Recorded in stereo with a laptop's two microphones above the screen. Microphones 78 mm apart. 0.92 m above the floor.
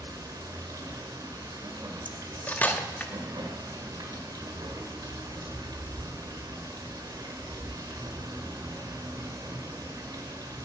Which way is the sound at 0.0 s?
55° right (ahead or behind).